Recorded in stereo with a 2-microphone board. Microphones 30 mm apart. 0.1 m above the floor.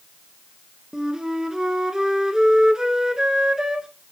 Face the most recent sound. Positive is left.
turn(degrees=-25)  # may be behind; listen again after turning